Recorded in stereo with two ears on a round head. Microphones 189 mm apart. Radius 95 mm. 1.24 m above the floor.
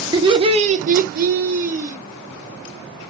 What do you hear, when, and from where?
0.1 s laughter: 20° right (ahead or behind), 0.8 m; by 2.0 s 35° right (ahead or behind), 0.9 m